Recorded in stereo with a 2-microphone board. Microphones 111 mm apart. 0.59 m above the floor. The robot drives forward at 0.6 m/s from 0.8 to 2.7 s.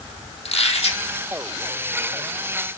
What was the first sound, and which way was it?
A squeak, 65° left (ahead or behind).